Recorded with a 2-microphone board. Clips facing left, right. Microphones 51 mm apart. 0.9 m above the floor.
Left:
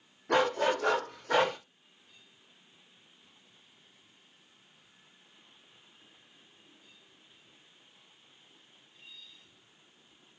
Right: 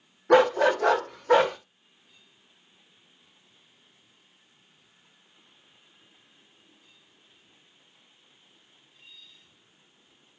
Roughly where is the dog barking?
Right.